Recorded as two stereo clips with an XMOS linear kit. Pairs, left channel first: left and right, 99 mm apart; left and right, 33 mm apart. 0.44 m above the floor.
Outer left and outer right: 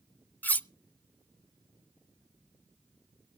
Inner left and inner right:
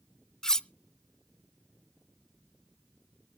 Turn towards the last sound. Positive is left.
turn(degrees=20)  # may be behind; listen again after turning